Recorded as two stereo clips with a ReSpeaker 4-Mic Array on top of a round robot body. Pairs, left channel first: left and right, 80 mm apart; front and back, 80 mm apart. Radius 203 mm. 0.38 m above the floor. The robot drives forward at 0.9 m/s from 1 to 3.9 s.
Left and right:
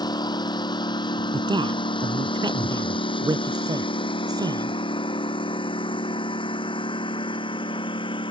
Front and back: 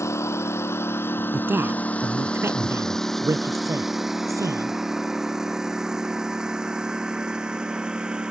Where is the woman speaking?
115° right; by 4.8 s 130° right.